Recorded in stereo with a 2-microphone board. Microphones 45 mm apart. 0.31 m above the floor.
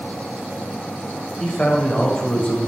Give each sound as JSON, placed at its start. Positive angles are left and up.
{"t": 1.4, "sound": "a man speaking", "side_deg": 25, "distance_m": 1.3}